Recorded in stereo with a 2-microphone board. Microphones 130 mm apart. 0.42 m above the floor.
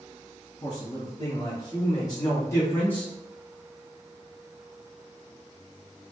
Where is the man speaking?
45° left (ahead or behind), 1.7 m; by 3.1 s 10° left (ahead or behind), 1.0 m.